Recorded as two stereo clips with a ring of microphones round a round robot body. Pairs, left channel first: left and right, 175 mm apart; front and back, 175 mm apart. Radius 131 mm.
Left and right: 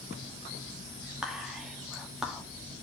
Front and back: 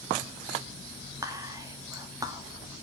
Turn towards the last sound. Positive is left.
turn(degrees=-170)